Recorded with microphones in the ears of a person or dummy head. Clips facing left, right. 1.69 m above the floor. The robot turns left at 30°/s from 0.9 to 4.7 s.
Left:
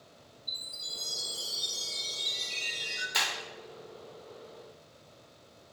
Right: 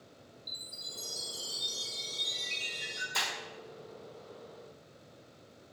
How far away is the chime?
About 1.5 m.